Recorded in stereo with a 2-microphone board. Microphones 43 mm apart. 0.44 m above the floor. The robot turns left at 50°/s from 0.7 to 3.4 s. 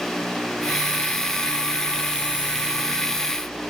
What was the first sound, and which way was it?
Only background noise.